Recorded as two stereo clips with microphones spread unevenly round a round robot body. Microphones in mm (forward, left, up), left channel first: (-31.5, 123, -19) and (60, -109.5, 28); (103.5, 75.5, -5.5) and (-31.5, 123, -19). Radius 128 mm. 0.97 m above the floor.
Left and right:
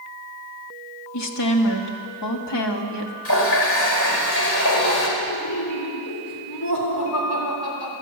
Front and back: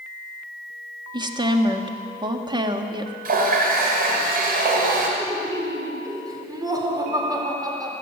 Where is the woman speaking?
105° left, 1.6 m.